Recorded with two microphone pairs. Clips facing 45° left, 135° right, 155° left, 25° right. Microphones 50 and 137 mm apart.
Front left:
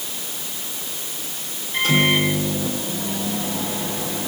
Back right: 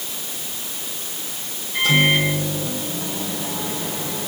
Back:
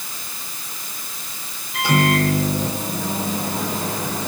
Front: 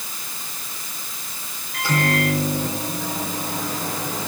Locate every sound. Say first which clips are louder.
1.7 s a microwave: back right 1 dB, back 4 dB; 85° left, 9 m